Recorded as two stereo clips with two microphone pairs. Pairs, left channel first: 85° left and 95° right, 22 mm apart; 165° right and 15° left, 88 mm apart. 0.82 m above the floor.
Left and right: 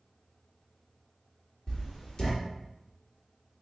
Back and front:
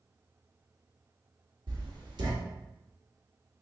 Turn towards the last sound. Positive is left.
turn(degrees=40)